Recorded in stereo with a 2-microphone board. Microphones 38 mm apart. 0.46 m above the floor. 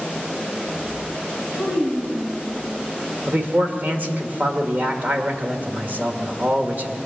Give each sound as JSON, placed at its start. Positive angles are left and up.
{"t": 1.5, "sound": "a child speaking", "side_deg": -25, "distance_m": 3.0}
{"t": 3.3, "sound": "a man speaking", "side_deg": -45, "distance_m": 1.5}